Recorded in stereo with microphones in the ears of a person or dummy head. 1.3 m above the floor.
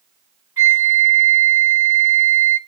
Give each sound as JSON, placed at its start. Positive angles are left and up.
{"t": 0.6, "sound": "a flute", "side_deg": -20, "distance_m": 1.3}